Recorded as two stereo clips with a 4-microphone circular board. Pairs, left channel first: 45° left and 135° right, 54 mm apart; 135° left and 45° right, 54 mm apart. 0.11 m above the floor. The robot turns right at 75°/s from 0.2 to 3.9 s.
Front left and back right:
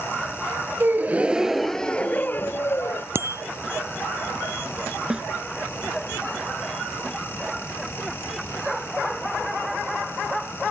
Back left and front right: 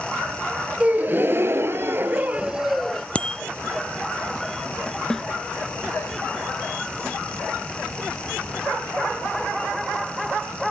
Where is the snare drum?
170° right.